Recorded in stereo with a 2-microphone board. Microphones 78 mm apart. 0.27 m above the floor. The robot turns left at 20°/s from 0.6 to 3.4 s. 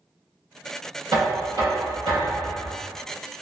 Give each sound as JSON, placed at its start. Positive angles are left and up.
{"t": 1.1, "sound": "knocking", "azimuth_deg": -70, "distance_m": 1.8}